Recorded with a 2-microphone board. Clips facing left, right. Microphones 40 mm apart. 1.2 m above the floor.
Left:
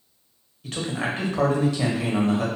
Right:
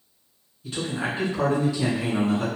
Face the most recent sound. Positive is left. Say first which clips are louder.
# left 1 dB
turn(degrees=75)  # may be behind; listen again after turning